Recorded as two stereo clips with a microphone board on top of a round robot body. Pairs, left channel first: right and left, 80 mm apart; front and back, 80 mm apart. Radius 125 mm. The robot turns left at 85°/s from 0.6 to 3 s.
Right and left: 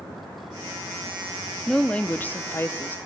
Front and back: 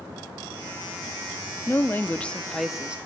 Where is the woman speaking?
10° right, 1.3 m; by 3.0 s 120° right, 1.3 m.